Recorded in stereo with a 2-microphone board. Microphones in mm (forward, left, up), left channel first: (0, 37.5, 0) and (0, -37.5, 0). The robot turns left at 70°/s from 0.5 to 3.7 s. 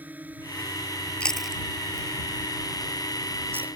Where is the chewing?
15° left (ahead or behind); by 3.7 s 20° right (ahead or behind).